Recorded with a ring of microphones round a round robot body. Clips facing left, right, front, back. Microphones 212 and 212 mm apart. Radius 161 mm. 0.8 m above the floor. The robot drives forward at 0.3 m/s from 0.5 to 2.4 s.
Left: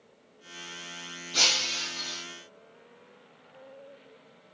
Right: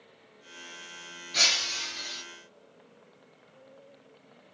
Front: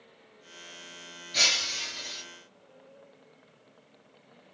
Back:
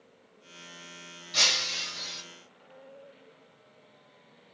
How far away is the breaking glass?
About 1.7 m.